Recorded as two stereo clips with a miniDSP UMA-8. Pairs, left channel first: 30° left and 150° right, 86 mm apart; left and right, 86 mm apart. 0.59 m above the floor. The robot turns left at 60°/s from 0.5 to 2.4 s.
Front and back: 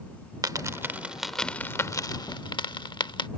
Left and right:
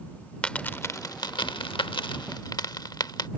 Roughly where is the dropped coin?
Behind.